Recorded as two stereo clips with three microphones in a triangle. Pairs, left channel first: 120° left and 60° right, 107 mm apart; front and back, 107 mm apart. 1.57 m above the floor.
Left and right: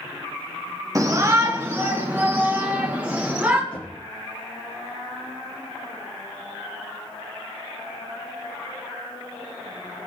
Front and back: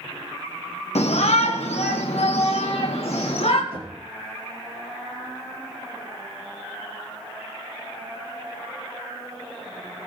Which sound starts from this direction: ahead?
A shout, at 0.9 s.